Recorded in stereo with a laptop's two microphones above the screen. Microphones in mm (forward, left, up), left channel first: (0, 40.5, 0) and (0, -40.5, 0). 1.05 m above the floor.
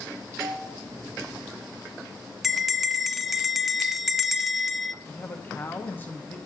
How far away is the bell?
About 0.6 m.